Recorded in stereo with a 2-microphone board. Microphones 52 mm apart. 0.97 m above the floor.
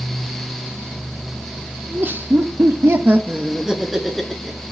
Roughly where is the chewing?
I don't hear chewing.